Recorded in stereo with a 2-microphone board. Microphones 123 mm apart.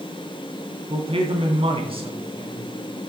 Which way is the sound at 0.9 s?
50° right (ahead or behind).